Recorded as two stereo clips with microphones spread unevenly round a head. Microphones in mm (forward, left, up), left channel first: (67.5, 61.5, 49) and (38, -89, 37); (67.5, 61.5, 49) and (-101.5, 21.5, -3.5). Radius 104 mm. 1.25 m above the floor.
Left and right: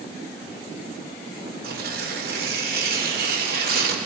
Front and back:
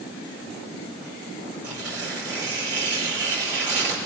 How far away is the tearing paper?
About 4.5 m.